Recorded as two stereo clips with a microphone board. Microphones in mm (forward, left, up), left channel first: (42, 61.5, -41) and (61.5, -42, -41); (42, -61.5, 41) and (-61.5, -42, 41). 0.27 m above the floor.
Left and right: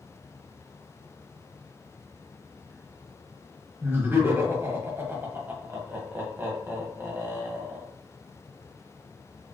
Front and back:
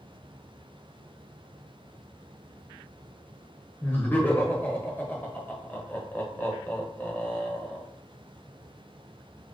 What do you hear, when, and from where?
3.8 s laughter: 60° right, 1.2 m